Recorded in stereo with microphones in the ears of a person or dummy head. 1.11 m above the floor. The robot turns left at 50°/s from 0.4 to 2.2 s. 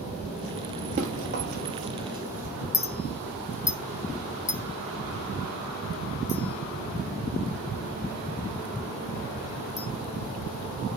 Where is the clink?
15° left (ahead or behind), 0.6 m.